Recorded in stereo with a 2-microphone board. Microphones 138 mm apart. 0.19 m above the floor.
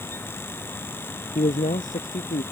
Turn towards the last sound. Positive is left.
turn(degrees=75)  # may be behind; listen again after turning